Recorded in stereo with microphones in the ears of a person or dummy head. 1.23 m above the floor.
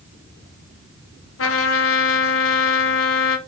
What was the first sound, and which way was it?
A trumpet, 70° left (ahead or behind).